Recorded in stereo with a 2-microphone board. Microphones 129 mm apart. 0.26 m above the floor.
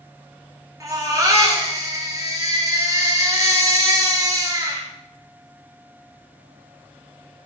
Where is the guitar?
No guitar in this recording.